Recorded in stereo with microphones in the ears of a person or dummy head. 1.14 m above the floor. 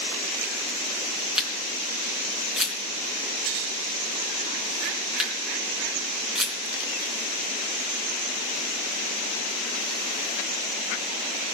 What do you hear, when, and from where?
1.4 s a camera shutter: 5° right (ahead or behind), 3.5 m